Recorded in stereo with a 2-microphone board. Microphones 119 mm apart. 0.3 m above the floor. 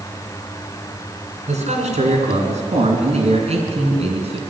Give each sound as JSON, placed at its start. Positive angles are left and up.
{"t": 1.5, "sound": "a man speaking", "side_deg": -70, "distance_m": 4.5}